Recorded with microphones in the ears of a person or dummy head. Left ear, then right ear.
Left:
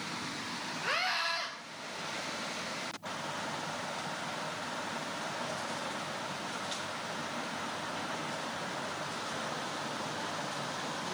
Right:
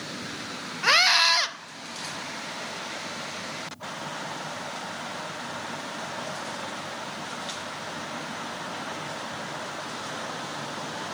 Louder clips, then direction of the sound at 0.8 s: Right 13 dB; 50° right (ahead or behind).